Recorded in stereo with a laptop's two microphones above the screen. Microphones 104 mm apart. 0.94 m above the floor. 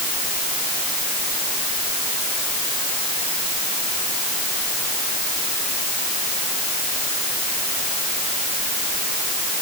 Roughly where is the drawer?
I don't hear a drawer.